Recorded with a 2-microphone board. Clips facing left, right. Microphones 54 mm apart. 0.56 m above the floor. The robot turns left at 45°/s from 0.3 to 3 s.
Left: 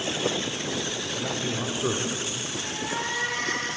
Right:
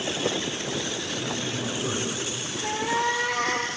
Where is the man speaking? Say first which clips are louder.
Left 3 dB; 45° left (ahead or behind), 1.6 m; by 2.5 s 20° left (ahead or behind), 1.6 m.